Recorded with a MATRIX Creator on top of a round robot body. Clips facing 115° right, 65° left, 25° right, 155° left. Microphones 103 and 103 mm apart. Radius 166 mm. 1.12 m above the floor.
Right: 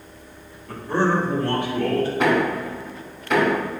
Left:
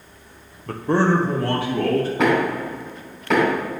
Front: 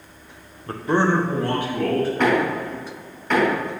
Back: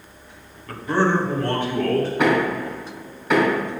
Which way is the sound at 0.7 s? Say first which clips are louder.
Left 3 dB, front 1 dB; 35° left.